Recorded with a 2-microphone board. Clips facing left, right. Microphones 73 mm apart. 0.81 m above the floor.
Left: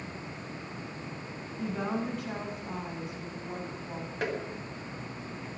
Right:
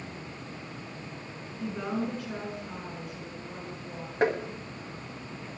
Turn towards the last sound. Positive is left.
turn(degrees=-30)  # may be behind; listen again after turning